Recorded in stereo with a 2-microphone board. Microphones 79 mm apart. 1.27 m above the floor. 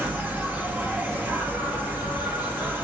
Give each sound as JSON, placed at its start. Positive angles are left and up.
{"t": 0.0, "sound": "an insect", "side_deg": -25, "distance_m": 0.9}